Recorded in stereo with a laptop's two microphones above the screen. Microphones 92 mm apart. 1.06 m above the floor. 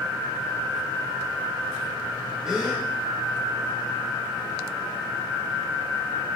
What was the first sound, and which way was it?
A gasp, 5° right (ahead or behind).